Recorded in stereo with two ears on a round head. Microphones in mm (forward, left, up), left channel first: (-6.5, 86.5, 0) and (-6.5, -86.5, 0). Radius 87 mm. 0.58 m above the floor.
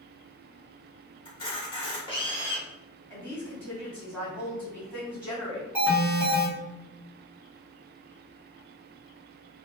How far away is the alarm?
About 1.2 m.